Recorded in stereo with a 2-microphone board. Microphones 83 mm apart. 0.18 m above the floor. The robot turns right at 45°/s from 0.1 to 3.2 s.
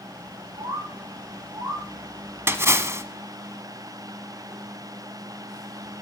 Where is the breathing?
No breathing in this recording.